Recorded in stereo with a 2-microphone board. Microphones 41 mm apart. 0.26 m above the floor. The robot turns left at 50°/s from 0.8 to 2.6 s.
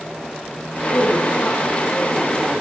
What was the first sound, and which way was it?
A woman speaking, 75° left.